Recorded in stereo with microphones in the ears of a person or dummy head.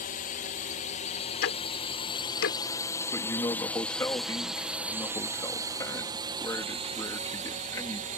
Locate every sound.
0.0 s a drone: 50° left (ahead or behind); by 8.2 s 40° right (ahead or behind)
1.4 s ticking: 65° left (ahead or behind)
3.1 s a man speaking: 15° left (ahead or behind)